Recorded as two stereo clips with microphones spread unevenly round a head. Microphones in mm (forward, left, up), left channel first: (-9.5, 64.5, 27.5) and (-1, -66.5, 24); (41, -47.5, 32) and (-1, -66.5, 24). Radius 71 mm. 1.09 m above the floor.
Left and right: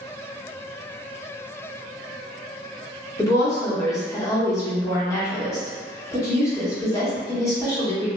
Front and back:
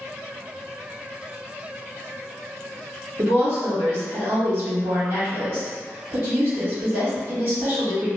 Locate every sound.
3.2 s a woman speaking: 160° left, 1.4 m